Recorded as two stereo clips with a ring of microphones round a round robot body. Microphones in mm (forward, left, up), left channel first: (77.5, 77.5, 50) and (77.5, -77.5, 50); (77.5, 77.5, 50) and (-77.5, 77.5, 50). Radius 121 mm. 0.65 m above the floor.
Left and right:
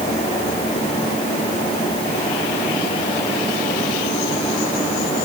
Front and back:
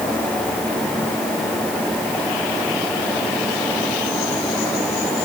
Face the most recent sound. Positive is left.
No sound to turn to.